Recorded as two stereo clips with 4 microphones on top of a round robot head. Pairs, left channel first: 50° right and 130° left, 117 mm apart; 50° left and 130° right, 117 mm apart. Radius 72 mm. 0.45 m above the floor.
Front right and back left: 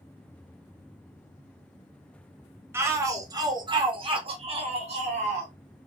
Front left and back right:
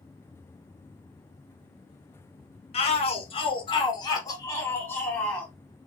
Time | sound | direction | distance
2.7 | a shout | 65° left | 1.6 m